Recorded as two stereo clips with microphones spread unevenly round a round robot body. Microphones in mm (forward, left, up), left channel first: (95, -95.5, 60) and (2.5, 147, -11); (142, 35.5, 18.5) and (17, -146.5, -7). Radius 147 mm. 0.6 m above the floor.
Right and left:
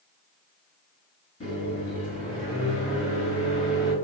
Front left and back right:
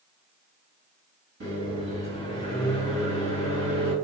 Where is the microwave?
145° right, 1.6 m.